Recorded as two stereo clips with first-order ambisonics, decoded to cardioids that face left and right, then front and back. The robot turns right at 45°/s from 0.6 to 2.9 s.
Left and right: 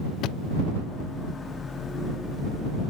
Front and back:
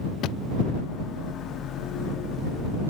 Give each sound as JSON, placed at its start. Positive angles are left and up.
{"t": 0.2, "sound": "a thud", "azimuth_deg": 45}